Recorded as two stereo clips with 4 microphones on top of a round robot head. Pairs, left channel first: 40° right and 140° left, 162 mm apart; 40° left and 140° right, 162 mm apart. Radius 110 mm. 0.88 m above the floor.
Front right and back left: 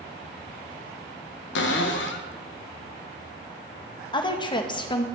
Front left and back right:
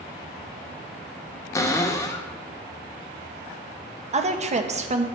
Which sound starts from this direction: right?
A woman speaking, at 4.1 s.